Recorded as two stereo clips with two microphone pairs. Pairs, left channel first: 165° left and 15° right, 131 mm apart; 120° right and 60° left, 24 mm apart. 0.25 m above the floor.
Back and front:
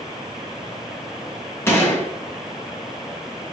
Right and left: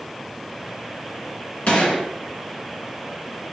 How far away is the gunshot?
About 3.5 m.